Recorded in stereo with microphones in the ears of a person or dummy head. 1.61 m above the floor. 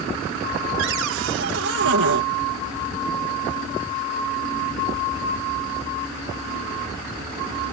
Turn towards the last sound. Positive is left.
turn(degrees=-70)  # may be behind; listen again after turning